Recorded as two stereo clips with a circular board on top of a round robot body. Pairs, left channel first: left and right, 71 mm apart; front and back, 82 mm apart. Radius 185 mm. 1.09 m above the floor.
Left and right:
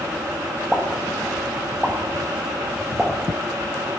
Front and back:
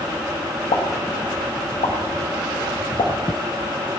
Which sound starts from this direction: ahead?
A pop, at 0.7 s.